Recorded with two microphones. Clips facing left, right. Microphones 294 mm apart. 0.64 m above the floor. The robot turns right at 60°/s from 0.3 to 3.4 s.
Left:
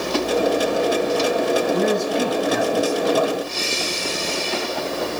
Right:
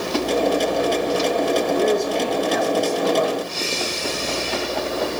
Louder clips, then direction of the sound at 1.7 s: Even; 80° left.